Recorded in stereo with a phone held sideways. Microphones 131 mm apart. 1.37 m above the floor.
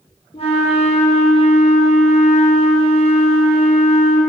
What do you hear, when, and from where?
0.3 s a flute: 45° left (ahead or behind), 1.5 m